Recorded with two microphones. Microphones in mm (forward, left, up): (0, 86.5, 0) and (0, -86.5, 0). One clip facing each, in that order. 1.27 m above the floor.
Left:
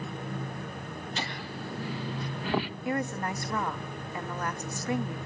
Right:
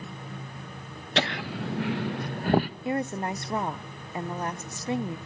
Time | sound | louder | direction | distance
1.2 | laughter | right 12 dB | 75° right (ahead or behind) | 0.9 m
2.9 | a woman speaking | right 2 dB | 25° right (ahead or behind) | 0.9 m